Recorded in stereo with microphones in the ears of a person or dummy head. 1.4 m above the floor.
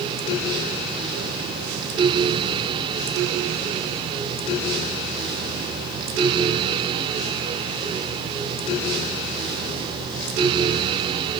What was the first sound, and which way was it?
Only background noise.